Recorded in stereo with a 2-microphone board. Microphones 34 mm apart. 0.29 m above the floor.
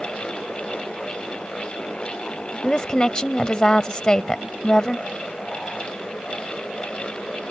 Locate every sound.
2.6 s a woman speaking: 25° left (ahead or behind)